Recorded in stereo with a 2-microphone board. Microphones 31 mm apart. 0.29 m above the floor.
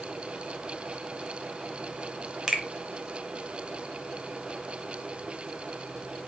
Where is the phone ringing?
No phone ringing in this recording.